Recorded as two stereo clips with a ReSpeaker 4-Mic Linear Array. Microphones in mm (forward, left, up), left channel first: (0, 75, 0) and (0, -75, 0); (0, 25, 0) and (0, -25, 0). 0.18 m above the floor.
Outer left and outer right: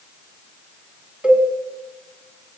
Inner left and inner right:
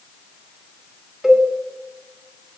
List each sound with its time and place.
1.2 s a cowbell: 5° right (ahead or behind), 1.7 m